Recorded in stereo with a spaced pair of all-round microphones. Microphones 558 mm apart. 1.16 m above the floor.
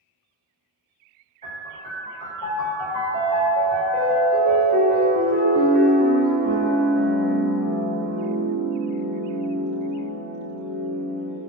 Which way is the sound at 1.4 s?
10° left (ahead or behind).